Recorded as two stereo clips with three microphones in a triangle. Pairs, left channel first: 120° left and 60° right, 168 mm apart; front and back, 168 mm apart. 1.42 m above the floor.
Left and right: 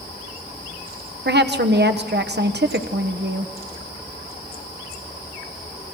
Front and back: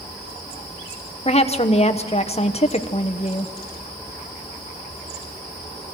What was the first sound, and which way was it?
A woman speaking, 55° right.